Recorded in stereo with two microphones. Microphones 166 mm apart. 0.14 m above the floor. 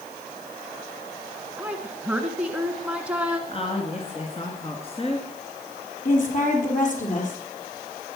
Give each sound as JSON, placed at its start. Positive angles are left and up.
{"t": 1.6, "sound": "a woman speaking", "side_deg": -10, "distance_m": 1.4}
{"t": 3.5, "sound": "a woman speaking", "side_deg": 35, "distance_m": 2.5}
{"t": 6.0, "sound": "a woman speaking", "side_deg": 50, "distance_m": 4.5}